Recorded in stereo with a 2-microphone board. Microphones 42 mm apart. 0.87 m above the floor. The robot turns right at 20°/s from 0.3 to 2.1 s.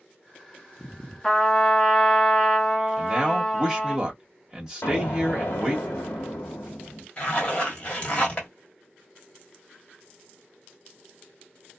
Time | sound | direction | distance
1.2 | a trumpet | 20° left (ahead or behind) | 1.1 m
3.0 | a man speaking | 15° right (ahead or behind) | 1.2 m
4.8 | an explosion | 60° left (ahead or behind) | 1.1 m
7.2 | a zipper | 25° left (ahead or behind) | 1.3 m